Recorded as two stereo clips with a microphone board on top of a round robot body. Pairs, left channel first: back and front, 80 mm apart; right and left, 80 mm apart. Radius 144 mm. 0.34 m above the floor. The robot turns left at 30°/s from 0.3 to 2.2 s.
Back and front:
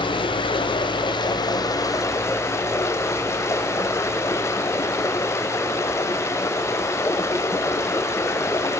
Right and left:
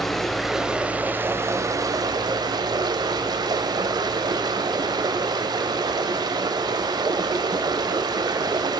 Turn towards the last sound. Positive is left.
turn(degrees=125)